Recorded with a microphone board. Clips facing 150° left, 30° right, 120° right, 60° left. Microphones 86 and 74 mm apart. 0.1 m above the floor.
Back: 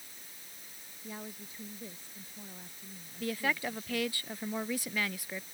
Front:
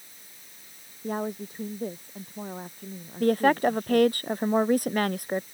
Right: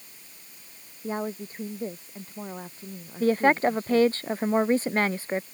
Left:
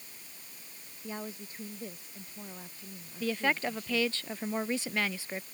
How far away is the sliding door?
No sliding door in this recording.